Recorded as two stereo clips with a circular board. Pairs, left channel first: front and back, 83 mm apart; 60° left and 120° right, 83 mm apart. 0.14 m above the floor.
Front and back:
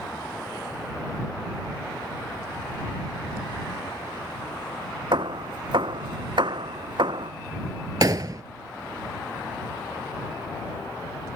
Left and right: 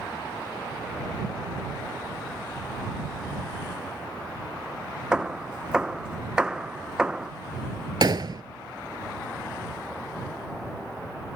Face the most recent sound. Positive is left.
turn(degrees=-145)